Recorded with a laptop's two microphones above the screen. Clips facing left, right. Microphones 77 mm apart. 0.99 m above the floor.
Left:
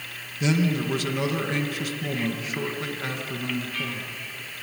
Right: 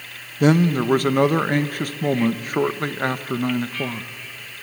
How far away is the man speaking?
About 1.0 m.